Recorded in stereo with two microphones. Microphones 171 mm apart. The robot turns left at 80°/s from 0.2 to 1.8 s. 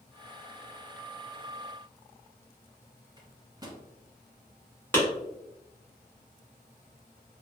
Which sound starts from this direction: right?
A microwave, at 3.2 s.